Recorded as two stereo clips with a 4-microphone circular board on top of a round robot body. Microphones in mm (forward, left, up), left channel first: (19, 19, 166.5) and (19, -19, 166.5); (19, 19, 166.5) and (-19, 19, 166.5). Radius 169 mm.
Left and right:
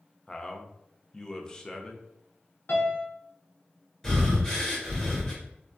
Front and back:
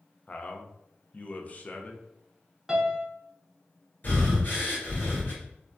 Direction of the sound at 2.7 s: 105° left.